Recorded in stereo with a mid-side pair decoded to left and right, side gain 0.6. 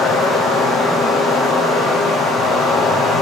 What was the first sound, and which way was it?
Running water, 55° left.